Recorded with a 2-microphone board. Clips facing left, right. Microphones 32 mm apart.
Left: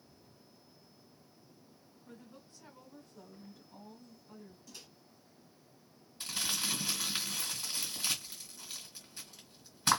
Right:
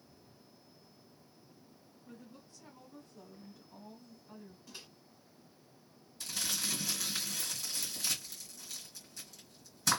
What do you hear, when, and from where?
2.1 s a woman speaking: 25° left (ahead or behind), 1.7 m; by 4.6 s 20° right (ahead or behind), 1.6 m
4.7 s a microwave: 25° right (ahead or behind), 0.9 m
6.2 s crumpling: 35° left (ahead or behind), 2.0 m